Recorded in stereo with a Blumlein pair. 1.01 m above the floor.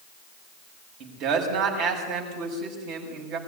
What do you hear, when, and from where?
1.0 s a man speaking: 40° right, 6.5 m